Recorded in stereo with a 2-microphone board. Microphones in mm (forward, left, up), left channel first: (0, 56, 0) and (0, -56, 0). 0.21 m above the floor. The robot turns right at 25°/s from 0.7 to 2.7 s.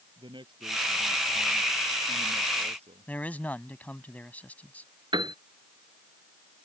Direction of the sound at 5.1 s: 45° right (ahead or behind).